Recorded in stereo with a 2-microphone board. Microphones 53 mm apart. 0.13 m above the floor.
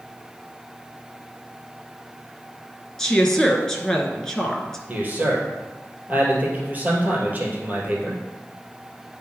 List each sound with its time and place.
3.0 s a woman speaking: 10° left (ahead or behind), 1.6 m
4.9 s a man speaking: 30° right (ahead or behind), 2.5 m